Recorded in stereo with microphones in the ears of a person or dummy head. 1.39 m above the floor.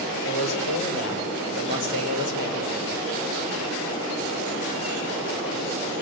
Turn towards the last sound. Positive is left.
turn(degrees=65)  # may be behind; listen again after turning